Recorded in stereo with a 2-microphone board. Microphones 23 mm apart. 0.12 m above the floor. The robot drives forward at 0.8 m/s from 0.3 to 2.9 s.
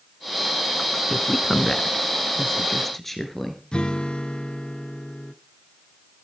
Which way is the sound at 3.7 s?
45° left (ahead or behind).